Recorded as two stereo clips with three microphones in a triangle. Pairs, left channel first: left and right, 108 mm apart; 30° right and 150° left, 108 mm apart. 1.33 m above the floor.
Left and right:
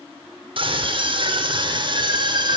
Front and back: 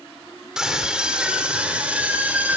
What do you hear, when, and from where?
0.6 s a scream: 125° right, 4.5 m; by 2.6 s 135° right, 6 m